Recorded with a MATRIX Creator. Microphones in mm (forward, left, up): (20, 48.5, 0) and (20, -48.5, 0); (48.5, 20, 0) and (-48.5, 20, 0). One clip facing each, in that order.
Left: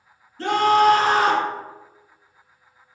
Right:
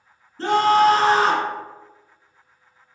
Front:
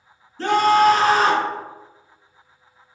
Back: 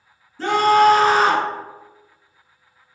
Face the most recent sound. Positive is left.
turn(degrees=-105)